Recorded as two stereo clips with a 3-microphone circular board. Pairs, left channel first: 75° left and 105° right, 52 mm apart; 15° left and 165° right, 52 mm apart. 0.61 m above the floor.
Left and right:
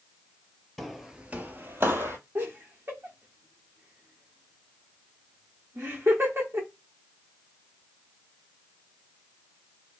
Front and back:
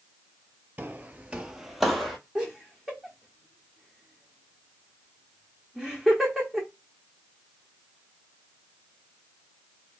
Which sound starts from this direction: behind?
Footsteps, at 0.8 s.